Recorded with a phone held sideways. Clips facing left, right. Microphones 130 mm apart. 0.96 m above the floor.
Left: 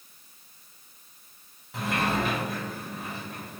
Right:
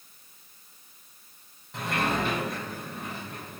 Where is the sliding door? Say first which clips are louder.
Left 1 dB; centre (ahead or behind), 0.7 m.